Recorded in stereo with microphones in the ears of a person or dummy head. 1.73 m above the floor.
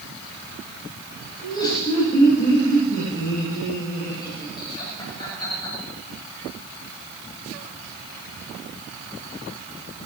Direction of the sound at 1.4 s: 20° left (ahead or behind).